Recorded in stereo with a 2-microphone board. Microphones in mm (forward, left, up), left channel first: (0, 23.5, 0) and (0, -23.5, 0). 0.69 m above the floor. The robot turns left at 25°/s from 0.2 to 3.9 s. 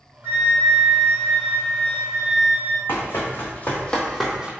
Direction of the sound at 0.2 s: 115° right.